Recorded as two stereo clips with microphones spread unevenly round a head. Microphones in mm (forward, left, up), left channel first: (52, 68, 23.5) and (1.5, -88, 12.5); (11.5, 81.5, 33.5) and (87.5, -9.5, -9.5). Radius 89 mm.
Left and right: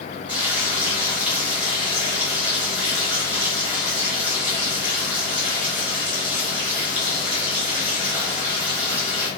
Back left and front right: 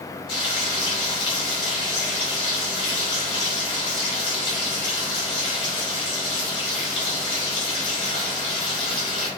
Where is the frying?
170° left, 0.8 m.